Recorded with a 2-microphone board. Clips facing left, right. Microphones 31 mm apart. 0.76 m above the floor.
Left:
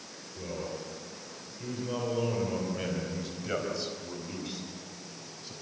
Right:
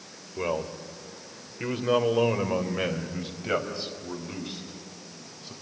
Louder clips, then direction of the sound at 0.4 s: Right 8 dB; 75° right (ahead or behind).